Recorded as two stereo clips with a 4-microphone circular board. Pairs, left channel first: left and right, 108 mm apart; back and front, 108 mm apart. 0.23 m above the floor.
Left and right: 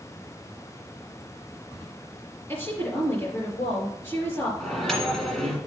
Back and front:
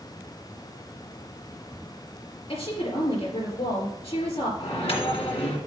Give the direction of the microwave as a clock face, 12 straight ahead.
6 o'clock.